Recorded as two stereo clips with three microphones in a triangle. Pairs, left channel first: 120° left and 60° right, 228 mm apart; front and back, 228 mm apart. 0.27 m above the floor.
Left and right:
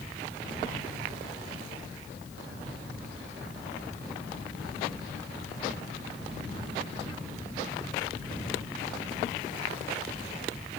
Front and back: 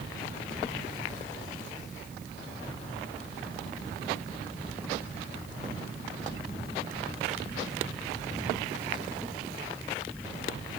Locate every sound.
Only background noise.